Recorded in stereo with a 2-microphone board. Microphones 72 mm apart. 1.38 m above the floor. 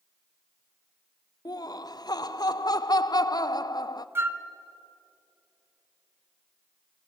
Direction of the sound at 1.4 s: 60° left (ahead or behind).